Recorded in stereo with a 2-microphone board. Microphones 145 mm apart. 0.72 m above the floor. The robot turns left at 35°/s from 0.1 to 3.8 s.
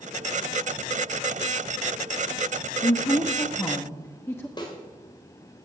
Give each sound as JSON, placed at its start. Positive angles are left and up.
{"t": 2.8, "sound": "a woman speaking", "side_deg": 30, "distance_m": 1.2}
{"t": 4.6, "sound": "a snare drum", "side_deg": 30, "distance_m": 3.0}